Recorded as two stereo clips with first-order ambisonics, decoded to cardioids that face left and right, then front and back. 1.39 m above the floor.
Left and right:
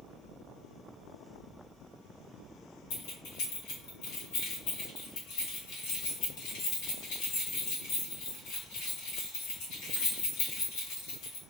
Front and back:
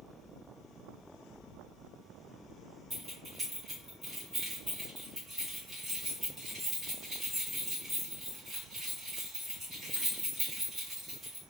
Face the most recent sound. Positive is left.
turn(degrees=105)